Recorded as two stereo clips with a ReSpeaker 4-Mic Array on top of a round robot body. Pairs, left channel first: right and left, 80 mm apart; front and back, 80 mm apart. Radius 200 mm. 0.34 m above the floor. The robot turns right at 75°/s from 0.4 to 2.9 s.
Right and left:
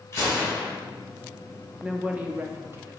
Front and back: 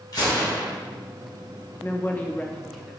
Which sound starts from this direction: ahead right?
A gunshot, at 0.1 s.